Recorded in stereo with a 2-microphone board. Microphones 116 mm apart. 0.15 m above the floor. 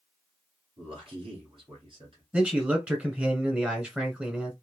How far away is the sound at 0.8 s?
About 2.0 m.